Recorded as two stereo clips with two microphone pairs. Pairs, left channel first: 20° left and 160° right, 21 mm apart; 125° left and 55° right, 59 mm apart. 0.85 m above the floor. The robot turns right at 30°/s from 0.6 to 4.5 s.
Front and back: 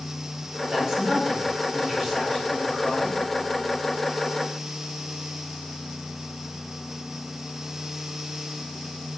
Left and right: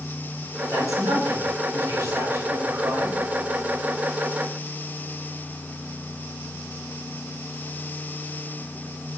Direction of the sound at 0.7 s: 85° right.